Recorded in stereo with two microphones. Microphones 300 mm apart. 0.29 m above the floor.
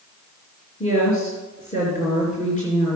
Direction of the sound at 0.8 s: 25° left (ahead or behind).